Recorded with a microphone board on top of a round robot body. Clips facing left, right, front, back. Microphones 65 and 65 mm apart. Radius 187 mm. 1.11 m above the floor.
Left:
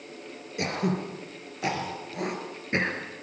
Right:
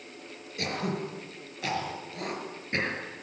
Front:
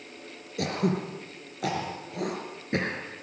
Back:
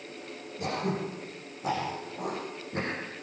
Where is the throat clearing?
20° left, 3.5 m.